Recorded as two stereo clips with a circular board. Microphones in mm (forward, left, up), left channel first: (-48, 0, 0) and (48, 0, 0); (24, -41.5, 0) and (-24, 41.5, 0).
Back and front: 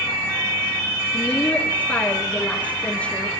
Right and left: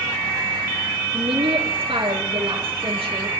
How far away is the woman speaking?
About 5.5 m.